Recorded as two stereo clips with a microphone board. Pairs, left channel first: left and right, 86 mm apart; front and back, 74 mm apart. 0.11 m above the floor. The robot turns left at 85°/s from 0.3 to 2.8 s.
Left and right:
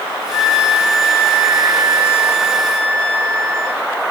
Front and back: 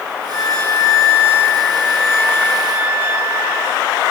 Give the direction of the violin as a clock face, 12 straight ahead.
9 o'clock.